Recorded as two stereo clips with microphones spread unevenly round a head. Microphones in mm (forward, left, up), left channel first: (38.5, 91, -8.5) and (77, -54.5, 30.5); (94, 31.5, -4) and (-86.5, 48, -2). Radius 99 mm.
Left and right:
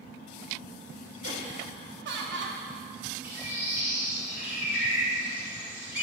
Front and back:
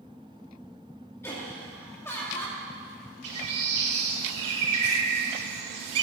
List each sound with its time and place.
1.2 s laughter: 85° right, 2 m
3.2 s a bird: 160° right, 2 m